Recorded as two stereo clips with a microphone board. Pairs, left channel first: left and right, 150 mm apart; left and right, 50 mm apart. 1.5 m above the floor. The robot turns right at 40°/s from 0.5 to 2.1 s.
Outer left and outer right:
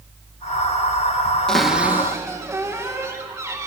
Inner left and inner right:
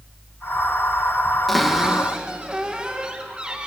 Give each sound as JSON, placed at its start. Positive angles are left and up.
{"t": 1.5, "sound": "a cupboard door", "side_deg": 5, "distance_m": 2.0}